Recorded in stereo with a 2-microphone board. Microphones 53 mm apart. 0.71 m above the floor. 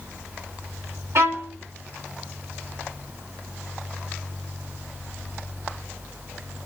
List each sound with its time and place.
1.1 s a violin: 60° right (ahead or behind), 2 m